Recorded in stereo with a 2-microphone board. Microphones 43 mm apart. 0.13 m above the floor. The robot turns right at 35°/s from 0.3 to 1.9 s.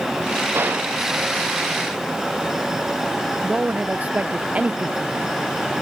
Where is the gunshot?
60° right (ahead or behind); by 0.9 s 45° right (ahead or behind).